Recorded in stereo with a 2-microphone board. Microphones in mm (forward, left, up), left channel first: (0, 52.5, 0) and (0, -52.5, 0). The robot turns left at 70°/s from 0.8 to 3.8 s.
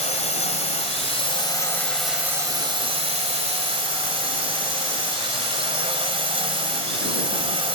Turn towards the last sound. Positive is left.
turn(degrees=-125)